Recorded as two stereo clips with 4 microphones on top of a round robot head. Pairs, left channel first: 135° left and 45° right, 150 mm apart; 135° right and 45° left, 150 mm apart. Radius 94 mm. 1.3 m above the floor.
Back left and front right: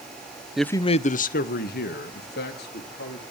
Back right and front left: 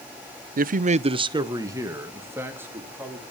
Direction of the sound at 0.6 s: 40° left.